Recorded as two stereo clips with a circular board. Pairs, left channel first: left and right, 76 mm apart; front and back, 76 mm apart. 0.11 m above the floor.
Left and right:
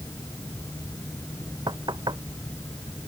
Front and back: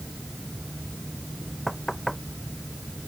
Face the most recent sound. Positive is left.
turn(degrees=-90)